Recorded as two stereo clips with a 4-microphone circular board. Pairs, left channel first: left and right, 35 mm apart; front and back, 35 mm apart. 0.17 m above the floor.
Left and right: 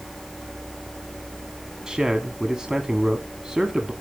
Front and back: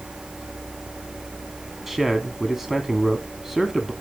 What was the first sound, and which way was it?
A man speaking, 115° right.